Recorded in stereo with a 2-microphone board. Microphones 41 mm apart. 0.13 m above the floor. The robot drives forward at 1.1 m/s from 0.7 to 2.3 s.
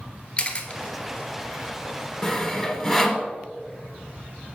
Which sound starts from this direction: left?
A camera shutter, at 0.4 s.